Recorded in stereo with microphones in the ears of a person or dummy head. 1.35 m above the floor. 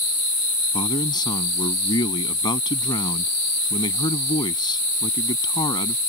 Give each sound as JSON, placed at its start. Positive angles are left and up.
{"t": 0.7, "sound": "a man speaking", "side_deg": 20}